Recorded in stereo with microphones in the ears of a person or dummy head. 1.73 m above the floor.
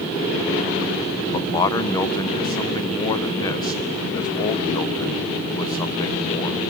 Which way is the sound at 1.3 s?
25° left (ahead or behind).